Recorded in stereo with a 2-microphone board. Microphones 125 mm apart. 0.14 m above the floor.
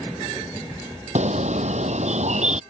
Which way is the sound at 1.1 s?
65° right (ahead or behind).